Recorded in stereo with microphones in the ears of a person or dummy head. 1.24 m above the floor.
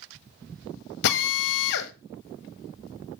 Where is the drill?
60° left (ahead or behind), 1.3 m.